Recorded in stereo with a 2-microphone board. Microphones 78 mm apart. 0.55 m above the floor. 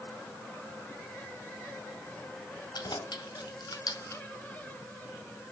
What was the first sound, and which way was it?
Keys jangling, 80° left.